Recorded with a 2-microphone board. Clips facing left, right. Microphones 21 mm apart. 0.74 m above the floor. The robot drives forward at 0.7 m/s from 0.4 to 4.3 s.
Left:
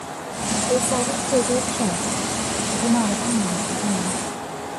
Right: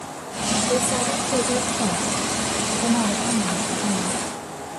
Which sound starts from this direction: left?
A woman speaking, at 0.7 s.